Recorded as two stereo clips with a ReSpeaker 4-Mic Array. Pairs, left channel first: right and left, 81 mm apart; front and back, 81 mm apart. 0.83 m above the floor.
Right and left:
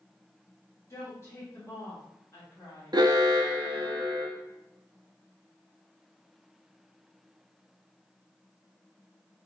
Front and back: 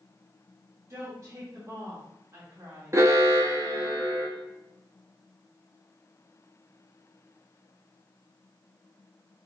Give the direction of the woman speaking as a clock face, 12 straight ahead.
5 o'clock.